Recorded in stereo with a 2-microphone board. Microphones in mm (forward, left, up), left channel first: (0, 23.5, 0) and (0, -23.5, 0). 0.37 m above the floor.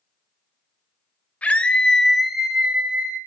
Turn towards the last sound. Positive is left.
turn(degrees=-40)  # may be behind; listen again after turning